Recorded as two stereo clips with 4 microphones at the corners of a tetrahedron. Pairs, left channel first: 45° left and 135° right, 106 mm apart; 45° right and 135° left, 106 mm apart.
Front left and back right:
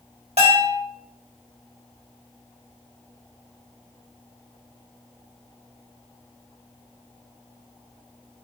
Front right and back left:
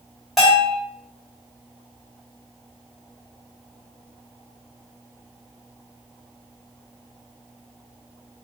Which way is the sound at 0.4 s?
135° right.